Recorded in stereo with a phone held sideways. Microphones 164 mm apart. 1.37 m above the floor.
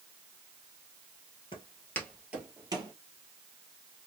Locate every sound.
1.5 s footsteps: 30° left (ahead or behind), 1.5 m; by 2.9 s 30° right (ahead or behind), 1.8 m